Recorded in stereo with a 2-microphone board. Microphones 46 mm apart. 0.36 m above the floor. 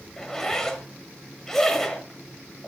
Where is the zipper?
10° left (ahead or behind), 1.2 m.